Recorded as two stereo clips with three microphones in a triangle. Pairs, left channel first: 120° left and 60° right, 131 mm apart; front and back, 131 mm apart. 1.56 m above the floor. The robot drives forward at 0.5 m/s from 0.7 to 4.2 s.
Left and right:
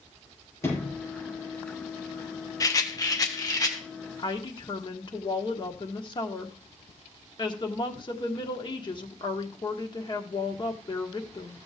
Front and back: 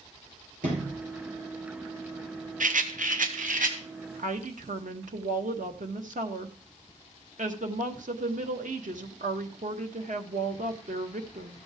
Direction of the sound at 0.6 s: 170° right.